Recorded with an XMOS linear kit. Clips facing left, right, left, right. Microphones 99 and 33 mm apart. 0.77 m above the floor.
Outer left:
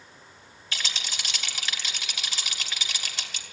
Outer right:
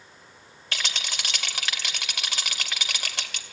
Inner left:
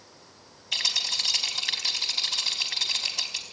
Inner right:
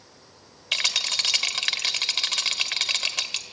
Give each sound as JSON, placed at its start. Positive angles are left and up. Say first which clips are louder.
{"t": 0.7, "sound": "a rattle", "louder": "outer right 2 dB, inner right 3 dB", "side_deg": -75, "distance_m": 2.0}